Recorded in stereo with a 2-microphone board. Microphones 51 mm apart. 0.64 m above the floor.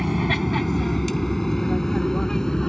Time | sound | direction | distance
0.0 | an aircraft | centre (ahead or behind) | ?